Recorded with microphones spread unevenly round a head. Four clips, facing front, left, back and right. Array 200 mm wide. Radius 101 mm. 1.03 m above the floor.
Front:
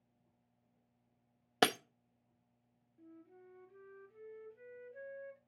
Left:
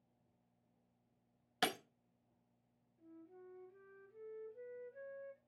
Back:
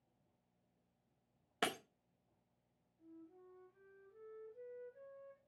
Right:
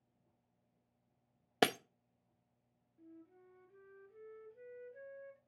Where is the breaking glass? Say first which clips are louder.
Right 6 dB, front 9 dB; 50° right, 0.7 m.